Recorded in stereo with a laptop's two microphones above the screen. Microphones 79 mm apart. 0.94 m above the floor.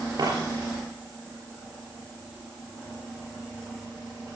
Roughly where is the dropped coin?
Right.